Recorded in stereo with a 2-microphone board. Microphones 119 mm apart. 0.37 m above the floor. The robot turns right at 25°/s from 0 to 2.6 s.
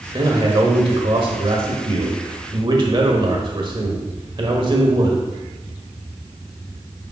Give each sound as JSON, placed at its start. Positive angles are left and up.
{"t": 0.1, "sound": "a man speaking", "azimuth_deg": -130, "distance_m": 1.4}